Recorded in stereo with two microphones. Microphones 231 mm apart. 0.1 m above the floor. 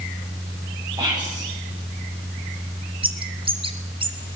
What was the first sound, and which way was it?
Whispering, 15° right (ahead or behind).